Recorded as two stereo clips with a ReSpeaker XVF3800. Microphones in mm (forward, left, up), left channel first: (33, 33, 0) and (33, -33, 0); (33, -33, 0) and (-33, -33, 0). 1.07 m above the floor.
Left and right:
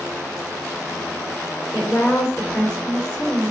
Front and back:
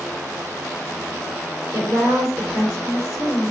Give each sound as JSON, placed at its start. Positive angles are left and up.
{"t": 1.7, "sound": "a woman speaking", "azimuth_deg": 140, "distance_m": 3.0}